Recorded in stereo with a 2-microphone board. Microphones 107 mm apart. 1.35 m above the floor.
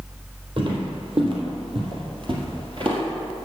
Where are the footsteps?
50° right (ahead or behind), 2.5 m; by 3.0 s 55° right (ahead or behind), 2 m.